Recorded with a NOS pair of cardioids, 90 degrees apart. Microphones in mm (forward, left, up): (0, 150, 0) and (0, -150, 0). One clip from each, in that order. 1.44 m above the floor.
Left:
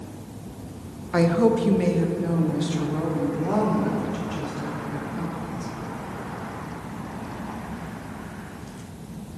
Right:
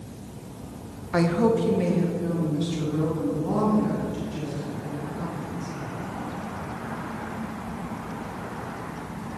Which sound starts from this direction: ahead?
A woman speaking, at 1.1 s.